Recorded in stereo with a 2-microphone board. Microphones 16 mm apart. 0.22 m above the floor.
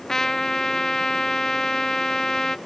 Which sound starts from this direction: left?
A trumpet, at 0.1 s.